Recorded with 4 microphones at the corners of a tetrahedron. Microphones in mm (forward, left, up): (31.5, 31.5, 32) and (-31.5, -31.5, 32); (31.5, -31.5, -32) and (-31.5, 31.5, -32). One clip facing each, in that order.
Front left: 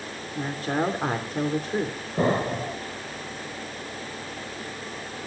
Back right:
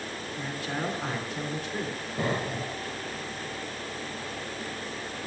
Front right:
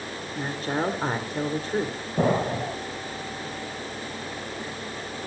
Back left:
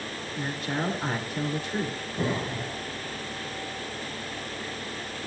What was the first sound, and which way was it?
A woman speaking, 5° left.